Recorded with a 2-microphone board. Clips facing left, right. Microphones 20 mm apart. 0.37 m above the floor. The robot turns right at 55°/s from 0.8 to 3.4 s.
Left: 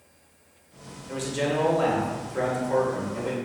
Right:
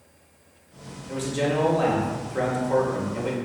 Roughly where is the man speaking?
Centre.